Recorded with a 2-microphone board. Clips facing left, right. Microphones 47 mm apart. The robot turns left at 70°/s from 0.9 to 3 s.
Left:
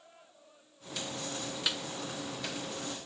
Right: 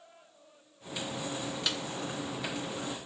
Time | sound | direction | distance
1.7 | a snare drum | 10° left (ahead or behind) | 1.2 m